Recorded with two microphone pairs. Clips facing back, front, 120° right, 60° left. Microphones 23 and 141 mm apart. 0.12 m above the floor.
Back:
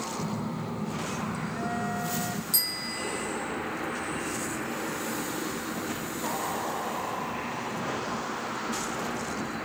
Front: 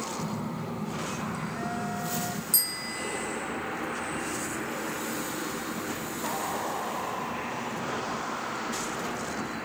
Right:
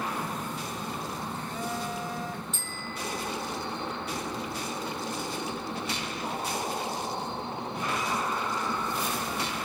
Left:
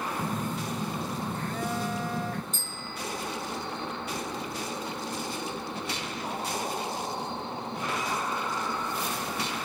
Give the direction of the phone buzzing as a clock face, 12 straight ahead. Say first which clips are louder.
Back 1 dB, left 3 dB; 9 o'clock.